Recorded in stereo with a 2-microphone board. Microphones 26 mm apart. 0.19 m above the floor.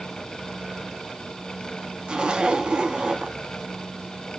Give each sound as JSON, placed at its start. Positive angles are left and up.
{"t": 2.1, "sound": "a zipper", "side_deg": -35, "distance_m": 0.6}